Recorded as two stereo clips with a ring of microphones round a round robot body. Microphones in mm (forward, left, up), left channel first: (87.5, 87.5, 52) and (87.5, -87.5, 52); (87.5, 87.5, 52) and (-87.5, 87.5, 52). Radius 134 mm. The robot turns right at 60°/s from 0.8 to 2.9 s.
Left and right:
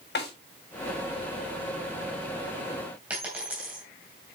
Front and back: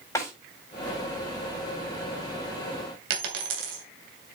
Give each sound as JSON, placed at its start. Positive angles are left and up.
{"t": 0.1, "sound": "a snare drum", "azimuth_deg": 75, "distance_m": 6.5}
{"t": 3.1, "sound": "a dropped coin", "azimuth_deg": -175, "distance_m": 2.5}